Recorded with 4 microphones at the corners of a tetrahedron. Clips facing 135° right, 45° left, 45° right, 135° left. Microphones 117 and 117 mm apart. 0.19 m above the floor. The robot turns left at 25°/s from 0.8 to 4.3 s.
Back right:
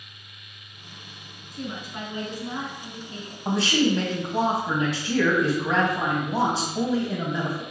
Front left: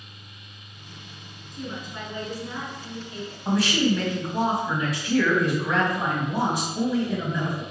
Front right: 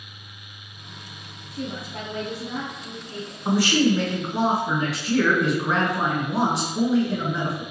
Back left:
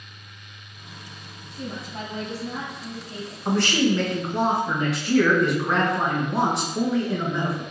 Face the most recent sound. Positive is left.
turn(degrees=-135)